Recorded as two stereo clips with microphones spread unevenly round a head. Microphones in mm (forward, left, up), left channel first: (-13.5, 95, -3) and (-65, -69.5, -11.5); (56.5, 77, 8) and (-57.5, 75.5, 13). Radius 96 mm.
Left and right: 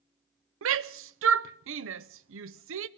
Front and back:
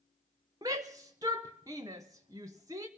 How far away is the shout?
About 0.7 m.